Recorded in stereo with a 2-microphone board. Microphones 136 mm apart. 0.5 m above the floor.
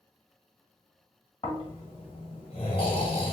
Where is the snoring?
45° left (ahead or behind), 1.5 m.